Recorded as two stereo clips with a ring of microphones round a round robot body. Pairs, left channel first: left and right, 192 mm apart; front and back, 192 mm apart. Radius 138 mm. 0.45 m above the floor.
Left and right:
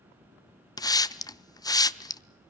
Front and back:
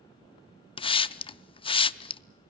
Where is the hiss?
35° left, 0.7 m.